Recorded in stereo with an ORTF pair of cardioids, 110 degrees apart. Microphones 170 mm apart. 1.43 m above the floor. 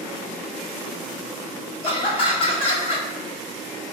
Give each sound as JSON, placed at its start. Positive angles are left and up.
{"t": 1.8, "sound": "laughter", "azimuth_deg": 30, "distance_m": 1.3}